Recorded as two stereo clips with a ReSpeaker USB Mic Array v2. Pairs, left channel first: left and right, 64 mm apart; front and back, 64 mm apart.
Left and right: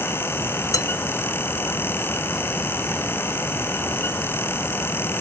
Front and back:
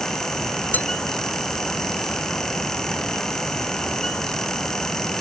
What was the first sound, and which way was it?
Dishes clattering, 65° left.